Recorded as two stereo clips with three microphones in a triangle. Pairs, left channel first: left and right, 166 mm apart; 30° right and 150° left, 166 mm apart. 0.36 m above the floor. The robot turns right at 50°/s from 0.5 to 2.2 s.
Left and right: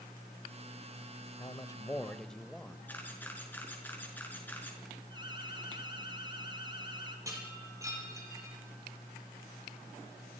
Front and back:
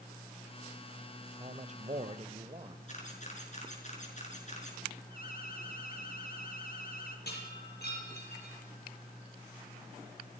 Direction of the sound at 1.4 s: 135° left.